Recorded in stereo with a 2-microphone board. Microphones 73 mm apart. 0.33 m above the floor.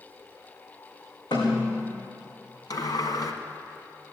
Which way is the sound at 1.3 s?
80° left.